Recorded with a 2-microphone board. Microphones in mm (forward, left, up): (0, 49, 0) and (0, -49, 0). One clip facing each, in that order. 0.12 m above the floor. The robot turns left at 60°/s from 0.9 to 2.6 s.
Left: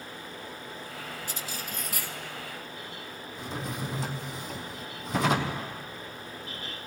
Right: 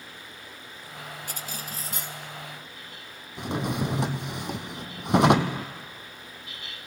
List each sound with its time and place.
1.3 s cutlery clinking: 110° right, 1.3 m; by 2.2 s 165° right, 1.3 m
3.4 s a drawer: 65° right (ahead or behind), 1.3 m